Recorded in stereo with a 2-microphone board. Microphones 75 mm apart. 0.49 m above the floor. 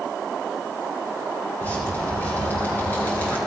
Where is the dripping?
25° left (ahead or behind), 4.5 m.